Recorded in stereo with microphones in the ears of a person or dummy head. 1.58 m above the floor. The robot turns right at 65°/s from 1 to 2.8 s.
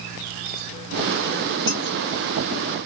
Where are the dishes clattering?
30° left (ahead or behind), 2.5 m; by 1.8 s 20° left (ahead or behind), 2.5 m.